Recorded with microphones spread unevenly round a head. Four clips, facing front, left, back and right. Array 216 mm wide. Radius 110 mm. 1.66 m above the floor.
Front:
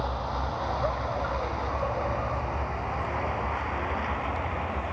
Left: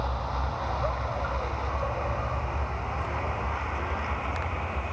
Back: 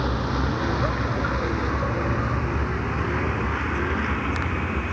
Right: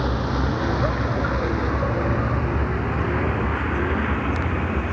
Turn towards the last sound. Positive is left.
turn(degrees=-105)